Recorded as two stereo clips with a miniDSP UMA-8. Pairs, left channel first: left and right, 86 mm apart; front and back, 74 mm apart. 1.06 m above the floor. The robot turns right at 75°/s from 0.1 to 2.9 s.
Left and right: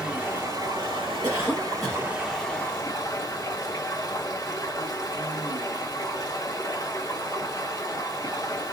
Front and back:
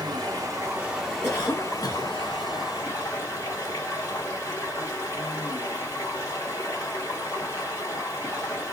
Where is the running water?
170° right, 1.3 m; by 8.7 s 40° left, 1.3 m.